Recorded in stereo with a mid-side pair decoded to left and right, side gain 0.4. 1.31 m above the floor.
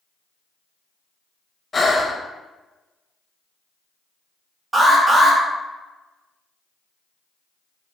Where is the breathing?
30° left, 0.5 m.